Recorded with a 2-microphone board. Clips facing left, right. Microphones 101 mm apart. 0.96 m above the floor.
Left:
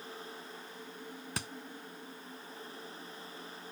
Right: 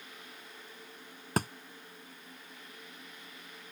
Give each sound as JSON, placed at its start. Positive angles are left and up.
{"t": 1.4, "sound": "a thud", "side_deg": -50}